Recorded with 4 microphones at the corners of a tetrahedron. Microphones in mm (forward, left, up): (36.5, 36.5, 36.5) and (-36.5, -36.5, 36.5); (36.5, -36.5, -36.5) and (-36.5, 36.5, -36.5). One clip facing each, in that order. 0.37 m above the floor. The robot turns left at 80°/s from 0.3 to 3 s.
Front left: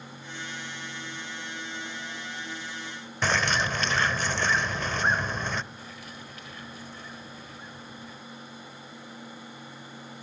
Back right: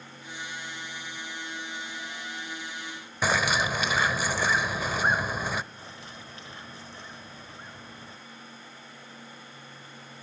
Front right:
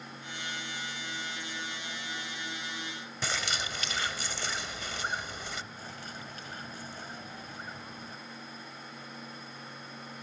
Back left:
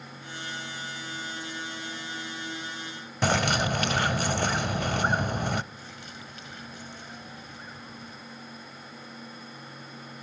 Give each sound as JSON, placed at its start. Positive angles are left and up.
{"t": 3.2, "sound": "a bird", "azimuth_deg": 145, "distance_m": 0.7}
{"t": 5.8, "sound": "a bird", "azimuth_deg": -80, "distance_m": 1.5}